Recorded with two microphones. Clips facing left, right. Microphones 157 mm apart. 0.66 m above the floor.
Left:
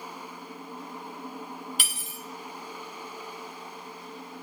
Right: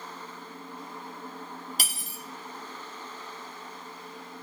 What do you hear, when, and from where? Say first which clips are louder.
1.8 s cutlery clinking: even; 35° right (ahead or behind), 0.6 m